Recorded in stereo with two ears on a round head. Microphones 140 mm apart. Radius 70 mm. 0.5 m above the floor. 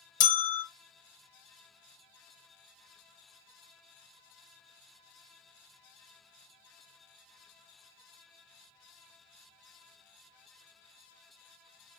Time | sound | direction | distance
0.2 | a bell | 50° left (ahead or behind) | 0.7 m